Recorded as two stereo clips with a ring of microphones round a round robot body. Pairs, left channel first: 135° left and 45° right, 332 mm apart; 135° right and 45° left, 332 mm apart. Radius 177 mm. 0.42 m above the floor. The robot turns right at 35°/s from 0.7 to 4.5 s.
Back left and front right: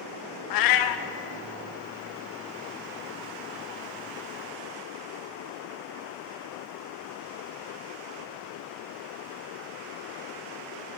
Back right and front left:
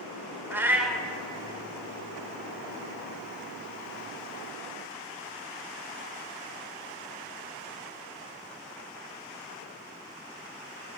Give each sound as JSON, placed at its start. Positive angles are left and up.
{"t": 0.5, "sound": "a cat meowing", "azimuth_deg": 130, "distance_m": 0.6}